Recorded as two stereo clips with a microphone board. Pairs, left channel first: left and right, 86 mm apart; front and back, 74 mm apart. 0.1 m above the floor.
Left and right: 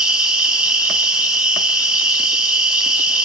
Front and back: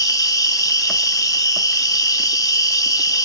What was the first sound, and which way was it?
An insect, 10° right.